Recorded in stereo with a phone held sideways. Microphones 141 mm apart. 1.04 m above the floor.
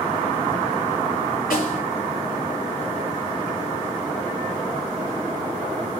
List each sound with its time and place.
1.5 s a snare drum: 85° left, 8.5 m